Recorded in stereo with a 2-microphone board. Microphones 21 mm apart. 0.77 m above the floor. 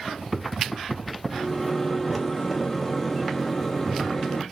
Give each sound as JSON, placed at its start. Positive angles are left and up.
{"t": 1.3, "sound": "a microwave", "side_deg": 10, "distance_m": 0.7}